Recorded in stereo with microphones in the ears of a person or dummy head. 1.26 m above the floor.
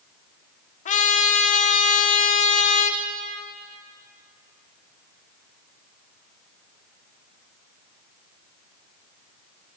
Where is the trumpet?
40° left (ahead or behind), 0.6 m.